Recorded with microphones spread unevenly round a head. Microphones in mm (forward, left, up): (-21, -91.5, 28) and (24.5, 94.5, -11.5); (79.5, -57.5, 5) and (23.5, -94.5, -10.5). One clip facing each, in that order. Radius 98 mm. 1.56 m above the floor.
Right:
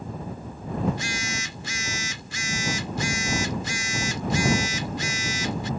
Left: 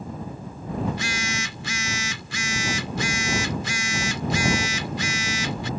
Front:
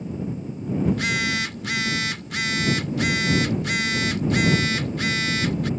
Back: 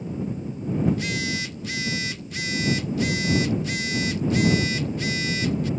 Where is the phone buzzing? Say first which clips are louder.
Even, front 3 dB; 40° left.